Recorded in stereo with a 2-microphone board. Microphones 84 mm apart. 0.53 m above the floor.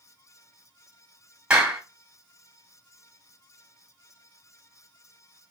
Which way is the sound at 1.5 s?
15° right (ahead or behind).